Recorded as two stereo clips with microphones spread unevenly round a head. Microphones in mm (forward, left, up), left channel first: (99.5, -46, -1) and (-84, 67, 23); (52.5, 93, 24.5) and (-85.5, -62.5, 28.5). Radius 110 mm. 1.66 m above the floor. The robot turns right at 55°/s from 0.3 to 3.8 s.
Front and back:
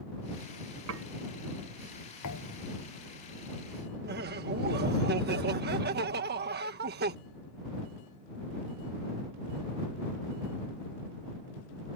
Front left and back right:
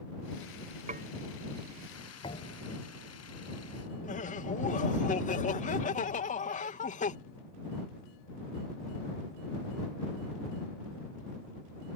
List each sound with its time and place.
0.9 s dishes clattering: 170° left; by 1.1 s straight behind
2.2 s a thud: 25° right; by 2.7 s 5° left
4.0 s laughter: 105° left